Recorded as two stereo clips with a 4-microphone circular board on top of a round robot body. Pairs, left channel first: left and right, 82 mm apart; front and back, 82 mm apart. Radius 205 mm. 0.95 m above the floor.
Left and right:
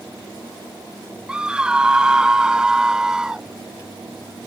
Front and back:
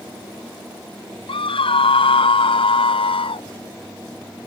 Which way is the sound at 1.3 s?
10° right.